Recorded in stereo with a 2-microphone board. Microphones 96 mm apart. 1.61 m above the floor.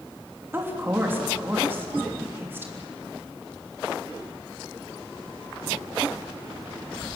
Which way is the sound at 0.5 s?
20° right (ahead or behind).